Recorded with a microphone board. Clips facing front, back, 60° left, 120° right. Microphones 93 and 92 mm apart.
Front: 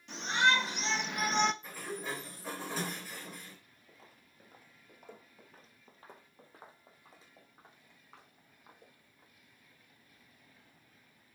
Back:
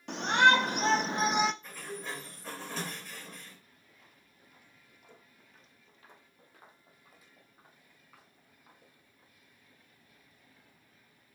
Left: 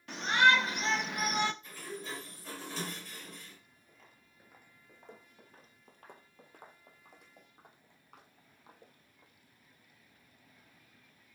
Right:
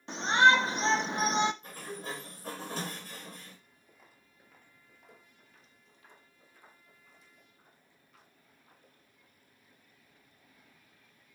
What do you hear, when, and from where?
0.1 s a shout: straight behind, 1.7 m; by 1.5 s 85° right, 0.6 m
1.6 s a sliding door: 80° right, 3.5 m
3.9 s footsteps: 45° right, 1.4 m; by 9.3 s 70° left, 4.5 m